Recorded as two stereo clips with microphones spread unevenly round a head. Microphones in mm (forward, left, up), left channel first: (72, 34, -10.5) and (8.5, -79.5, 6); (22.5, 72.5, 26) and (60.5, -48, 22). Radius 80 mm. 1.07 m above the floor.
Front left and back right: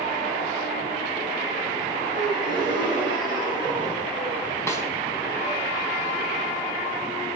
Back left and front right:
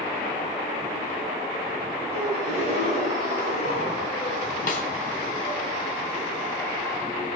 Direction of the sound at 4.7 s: 135° left.